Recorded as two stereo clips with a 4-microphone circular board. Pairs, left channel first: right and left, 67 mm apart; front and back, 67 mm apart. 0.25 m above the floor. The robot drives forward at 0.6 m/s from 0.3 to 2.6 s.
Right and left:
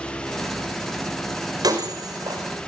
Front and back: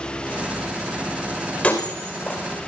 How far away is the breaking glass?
About 6.5 m.